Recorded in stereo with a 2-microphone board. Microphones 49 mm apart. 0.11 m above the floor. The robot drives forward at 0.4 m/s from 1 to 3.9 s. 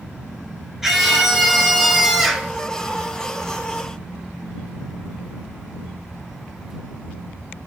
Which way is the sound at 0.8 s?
10° right (ahead or behind).